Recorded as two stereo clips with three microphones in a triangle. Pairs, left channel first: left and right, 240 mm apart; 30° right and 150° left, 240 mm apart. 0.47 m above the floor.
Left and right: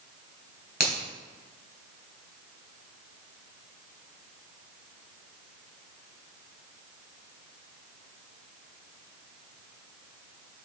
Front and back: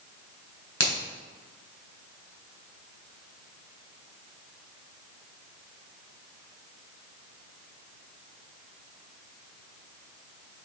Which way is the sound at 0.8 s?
45° right.